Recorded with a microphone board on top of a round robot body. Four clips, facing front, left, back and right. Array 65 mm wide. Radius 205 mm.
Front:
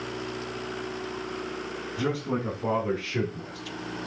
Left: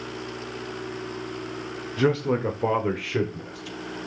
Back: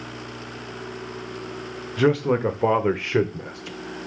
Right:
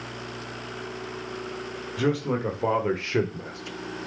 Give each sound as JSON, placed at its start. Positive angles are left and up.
{"t": 2.0, "sound": "a man speaking", "azimuth_deg": 165, "distance_m": 2.5}